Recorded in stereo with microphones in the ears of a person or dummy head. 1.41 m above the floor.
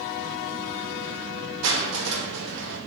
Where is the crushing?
60° right (ahead or behind), 0.7 m.